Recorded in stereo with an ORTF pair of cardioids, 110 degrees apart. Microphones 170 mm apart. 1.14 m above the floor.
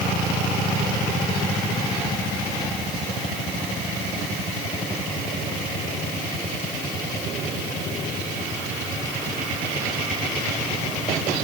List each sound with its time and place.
Only background noise.